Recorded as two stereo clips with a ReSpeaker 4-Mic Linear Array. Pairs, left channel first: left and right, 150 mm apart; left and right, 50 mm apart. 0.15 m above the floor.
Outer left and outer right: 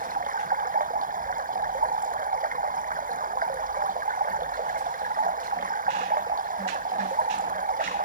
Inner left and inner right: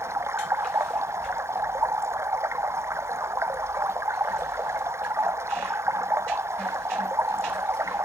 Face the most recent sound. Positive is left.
turn(degrees=-65)  # may be behind; listen again after turning